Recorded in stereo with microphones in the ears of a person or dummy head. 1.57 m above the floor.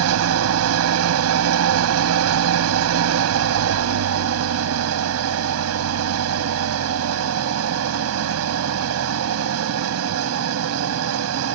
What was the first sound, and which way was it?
An engine running, 75° right (ahead or behind).